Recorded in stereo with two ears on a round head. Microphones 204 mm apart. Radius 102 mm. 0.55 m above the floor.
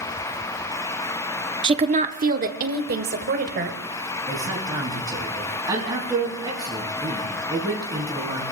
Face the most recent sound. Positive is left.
turn(degrees=-20)  # may be behind; listen again after turning